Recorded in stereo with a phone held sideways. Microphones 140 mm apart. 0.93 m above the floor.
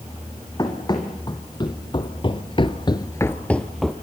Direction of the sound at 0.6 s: 30° left (ahead or behind).